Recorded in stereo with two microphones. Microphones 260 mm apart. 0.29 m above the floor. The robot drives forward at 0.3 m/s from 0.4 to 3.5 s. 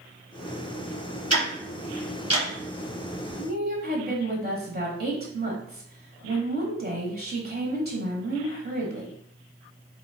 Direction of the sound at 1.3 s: 75° right (ahead or behind).